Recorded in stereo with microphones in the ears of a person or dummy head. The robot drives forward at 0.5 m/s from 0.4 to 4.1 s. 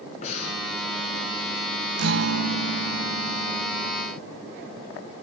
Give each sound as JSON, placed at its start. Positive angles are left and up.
{"t": 0.2, "sound": "breathing", "side_deg": 35, "distance_m": 4.0}
{"t": 2.0, "sound": "a guitar", "side_deg": -75, "distance_m": 1.1}